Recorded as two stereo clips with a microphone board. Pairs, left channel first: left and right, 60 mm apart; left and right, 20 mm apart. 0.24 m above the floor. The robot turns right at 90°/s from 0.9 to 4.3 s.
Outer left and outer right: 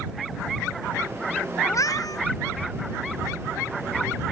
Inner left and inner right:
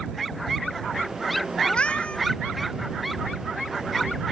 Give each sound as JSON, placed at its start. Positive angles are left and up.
{"t": 1.6, "sound": "a cat meowing", "azimuth_deg": 50}